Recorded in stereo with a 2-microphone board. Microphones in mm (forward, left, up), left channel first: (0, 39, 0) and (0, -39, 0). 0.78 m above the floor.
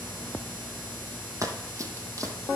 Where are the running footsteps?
45° right (ahead or behind), 1.0 m.